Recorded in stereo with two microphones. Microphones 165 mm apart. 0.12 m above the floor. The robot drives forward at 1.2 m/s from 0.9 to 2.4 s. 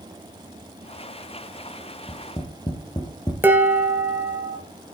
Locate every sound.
2.1 s tapping: 25° left (ahead or behind), 2.5 m
3.4 s dishes clattering: 10° right (ahead or behind), 1.6 m